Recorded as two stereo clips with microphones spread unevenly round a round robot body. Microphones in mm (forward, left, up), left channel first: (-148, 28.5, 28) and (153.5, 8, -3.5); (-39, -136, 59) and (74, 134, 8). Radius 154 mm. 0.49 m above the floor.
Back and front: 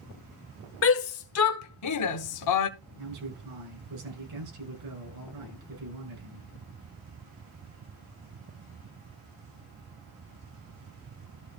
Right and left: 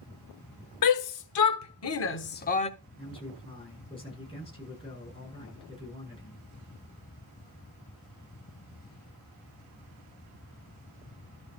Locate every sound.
0.8 s a shout: 135° right, 1.7 m; by 2.7 s 175° left, 1.0 m
3.0 s a man speaking: 40° right, 7.5 m